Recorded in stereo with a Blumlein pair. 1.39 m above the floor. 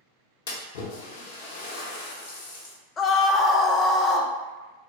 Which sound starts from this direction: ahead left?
A splash, at 0.5 s.